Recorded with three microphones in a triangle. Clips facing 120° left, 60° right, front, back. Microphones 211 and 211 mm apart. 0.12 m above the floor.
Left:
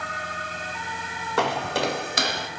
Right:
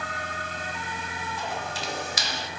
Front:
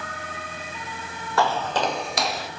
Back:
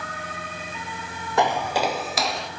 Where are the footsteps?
110° left, 2 m; by 2.5 s 85° left, 3 m.